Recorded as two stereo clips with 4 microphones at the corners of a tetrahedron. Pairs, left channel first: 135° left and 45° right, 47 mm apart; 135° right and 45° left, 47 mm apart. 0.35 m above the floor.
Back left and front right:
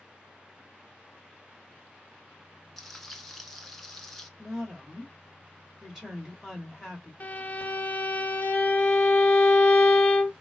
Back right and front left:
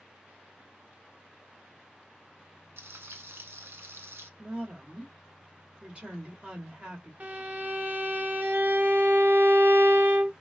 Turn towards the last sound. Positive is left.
turn(degrees=85)